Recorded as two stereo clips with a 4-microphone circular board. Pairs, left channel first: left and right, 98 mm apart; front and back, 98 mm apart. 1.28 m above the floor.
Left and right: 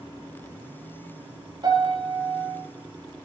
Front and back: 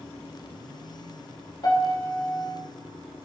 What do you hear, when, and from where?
1.6 s a piano: 45° right, 3 m